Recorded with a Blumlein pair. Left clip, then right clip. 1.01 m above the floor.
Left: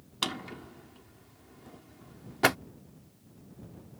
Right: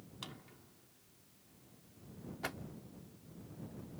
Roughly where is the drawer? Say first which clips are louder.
Left 18 dB; ahead left.